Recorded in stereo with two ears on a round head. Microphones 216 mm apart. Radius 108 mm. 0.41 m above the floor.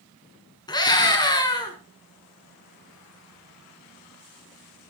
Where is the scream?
20° left (ahead or behind), 4 m.